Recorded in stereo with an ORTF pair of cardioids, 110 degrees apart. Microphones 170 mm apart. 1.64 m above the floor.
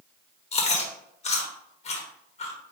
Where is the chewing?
40° left, 1.3 m.